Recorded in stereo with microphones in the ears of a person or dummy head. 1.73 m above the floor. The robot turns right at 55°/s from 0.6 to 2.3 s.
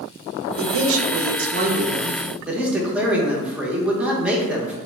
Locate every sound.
0.6 s a man speaking: 100° right, 0.6 m; by 4.8 s 5° right, 0.6 m